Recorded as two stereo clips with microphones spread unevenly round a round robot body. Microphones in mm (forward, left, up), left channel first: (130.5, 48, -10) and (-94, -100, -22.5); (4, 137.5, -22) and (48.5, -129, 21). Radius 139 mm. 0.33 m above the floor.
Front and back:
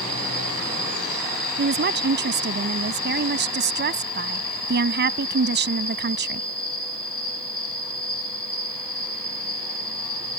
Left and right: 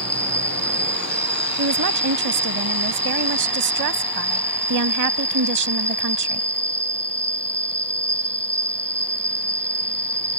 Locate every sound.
0.0 s an insect: 5° left
1.6 s a woman speaking: 100° right